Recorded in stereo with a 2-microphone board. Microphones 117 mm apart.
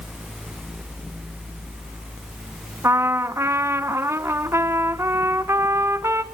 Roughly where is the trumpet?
Right.